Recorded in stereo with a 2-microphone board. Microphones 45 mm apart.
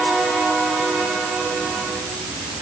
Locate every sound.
Only background noise.